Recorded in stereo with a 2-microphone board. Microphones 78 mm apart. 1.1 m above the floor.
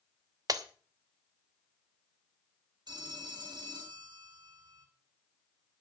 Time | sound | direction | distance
0.5 | breaking glass | 55° right (ahead or behind) | 1.0 m
2.9 | a phone ringing | 70° right (ahead or behind) | 3 m